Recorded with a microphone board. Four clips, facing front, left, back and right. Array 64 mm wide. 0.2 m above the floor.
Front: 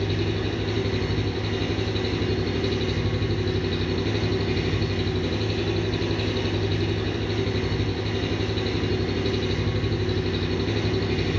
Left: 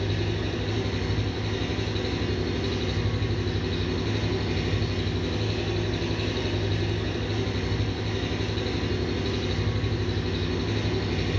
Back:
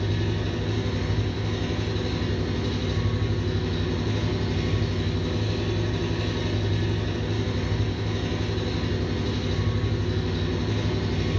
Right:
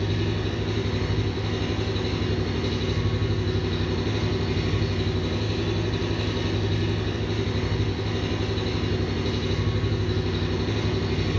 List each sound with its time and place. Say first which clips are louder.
0.0 s an engine running: right 2 dB, front 2 dB; straight ahead, 1.3 m